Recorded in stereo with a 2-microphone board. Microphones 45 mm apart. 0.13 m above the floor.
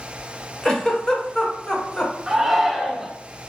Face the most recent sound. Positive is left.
turn(degrees=-10)  # may be behind; listen again after turning